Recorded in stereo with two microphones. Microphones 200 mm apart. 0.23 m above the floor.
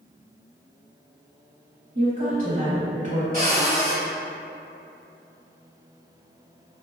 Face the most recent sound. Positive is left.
turn(degrees=-45)  # may be behind; listen again after turning